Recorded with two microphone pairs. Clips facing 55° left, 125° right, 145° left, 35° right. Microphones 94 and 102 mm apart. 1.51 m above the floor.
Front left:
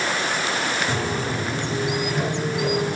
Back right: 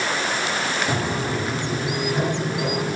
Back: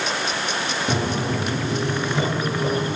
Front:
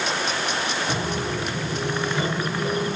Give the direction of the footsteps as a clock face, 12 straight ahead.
7 o'clock.